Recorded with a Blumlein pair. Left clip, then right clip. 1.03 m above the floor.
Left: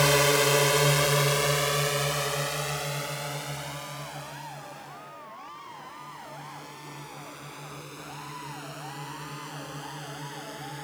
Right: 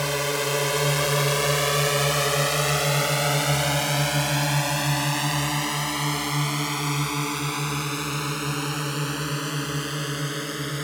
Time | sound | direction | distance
0.0 | a drone | 15° left | ?